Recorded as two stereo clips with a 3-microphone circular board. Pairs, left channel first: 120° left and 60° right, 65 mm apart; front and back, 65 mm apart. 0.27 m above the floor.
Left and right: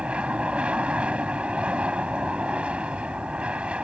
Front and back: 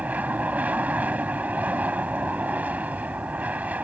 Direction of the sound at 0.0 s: 125° right.